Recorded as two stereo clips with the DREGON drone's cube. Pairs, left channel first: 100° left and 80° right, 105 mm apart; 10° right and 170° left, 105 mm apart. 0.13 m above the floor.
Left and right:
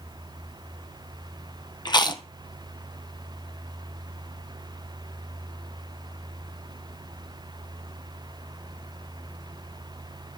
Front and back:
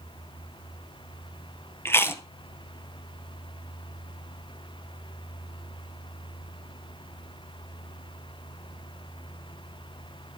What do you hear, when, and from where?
1.9 s chewing: 55° left, 1.0 m